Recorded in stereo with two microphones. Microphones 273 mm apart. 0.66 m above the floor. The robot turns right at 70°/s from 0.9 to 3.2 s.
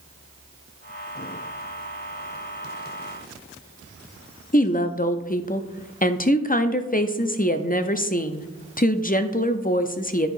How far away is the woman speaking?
About 0.5 m.